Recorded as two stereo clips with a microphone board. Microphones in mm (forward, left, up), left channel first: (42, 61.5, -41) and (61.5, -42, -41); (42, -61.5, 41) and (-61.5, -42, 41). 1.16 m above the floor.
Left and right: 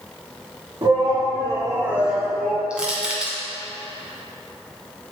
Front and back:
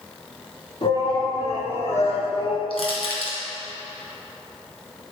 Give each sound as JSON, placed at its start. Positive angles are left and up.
{"t": 0.8, "sound": "a shout", "azimuth_deg": -35, "distance_m": 3.0}
{"t": 2.7, "sound": "crushing", "azimuth_deg": 0, "distance_m": 1.9}